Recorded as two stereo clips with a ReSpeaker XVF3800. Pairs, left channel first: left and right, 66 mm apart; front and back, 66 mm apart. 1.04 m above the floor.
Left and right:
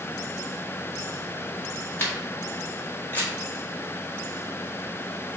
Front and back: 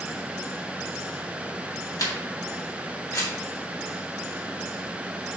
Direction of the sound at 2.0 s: 25° left.